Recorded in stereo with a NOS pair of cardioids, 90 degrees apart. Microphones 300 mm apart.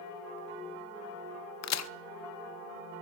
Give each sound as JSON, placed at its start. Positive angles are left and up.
{"t": 1.6, "sound": "a crack", "azimuth_deg": 55, "distance_m": 0.9}